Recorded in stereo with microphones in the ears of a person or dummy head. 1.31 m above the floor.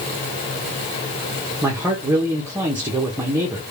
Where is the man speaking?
10° right (ahead or behind), 0.8 m.